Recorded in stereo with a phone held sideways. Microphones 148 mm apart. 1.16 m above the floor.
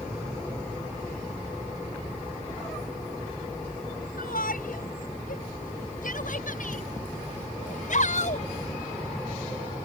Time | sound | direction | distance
4.2 | a shout | 85° left | ?